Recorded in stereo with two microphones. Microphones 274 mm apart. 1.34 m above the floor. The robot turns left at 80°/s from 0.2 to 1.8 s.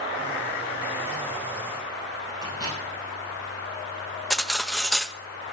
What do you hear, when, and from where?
2.4 s a microwave: 15° right (ahead or behind), 7 m
4.3 s cutlery clinking: centre (ahead or behind), 0.6 m